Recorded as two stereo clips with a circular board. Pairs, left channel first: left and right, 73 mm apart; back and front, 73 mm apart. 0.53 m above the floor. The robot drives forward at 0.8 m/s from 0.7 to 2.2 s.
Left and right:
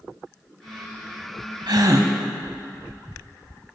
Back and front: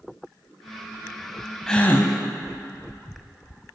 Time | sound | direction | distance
1.7 | a gasp | 100° right | 0.6 m